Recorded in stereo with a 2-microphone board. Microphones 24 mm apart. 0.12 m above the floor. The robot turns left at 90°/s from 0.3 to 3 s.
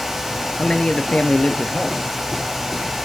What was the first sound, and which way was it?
A man speaking, 145° left.